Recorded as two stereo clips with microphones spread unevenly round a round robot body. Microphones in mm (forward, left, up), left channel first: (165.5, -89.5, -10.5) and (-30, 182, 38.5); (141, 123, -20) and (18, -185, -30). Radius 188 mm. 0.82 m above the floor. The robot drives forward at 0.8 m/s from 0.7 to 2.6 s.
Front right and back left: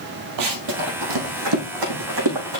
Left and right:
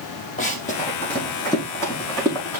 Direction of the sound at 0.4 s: 135° left.